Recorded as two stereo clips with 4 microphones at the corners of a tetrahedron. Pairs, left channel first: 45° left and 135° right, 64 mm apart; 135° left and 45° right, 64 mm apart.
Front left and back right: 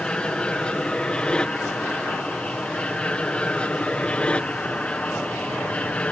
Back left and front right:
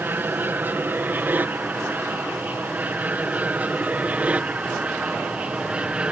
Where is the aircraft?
20° right; by 6.1 s 5° left.